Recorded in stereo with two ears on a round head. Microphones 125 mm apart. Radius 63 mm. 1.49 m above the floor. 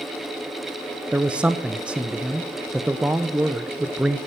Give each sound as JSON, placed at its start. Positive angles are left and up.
{"t": 1.1, "sound": "a man speaking", "side_deg": -10, "distance_m": 0.5}